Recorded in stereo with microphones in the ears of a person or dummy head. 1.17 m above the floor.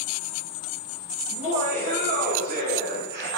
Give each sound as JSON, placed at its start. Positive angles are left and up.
{"t": 1.3, "sound": "laughter", "side_deg": -40, "distance_m": 4.0}